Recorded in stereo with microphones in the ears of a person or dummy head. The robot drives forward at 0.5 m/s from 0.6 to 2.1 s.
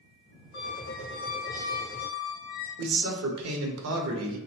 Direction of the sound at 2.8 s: 75° right (ahead or behind).